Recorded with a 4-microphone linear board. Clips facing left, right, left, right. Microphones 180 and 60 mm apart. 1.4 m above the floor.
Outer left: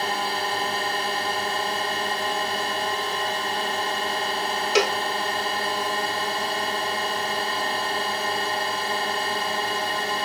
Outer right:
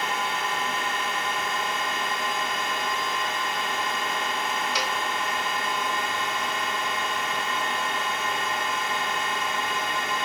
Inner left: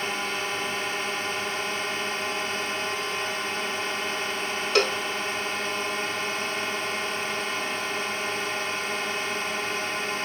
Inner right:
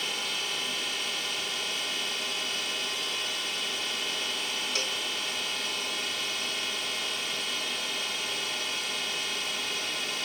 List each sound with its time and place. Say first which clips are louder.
0.0 s a drone: outer left 3 dB, inner left 5 dB; 35° left (ahead or behind)
4.8 s a cowbell: outer left 9 dB, inner left 15 dB; 85° left